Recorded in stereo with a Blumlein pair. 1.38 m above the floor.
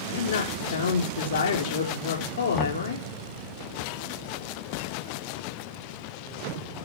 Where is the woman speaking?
60° left, 4.5 m.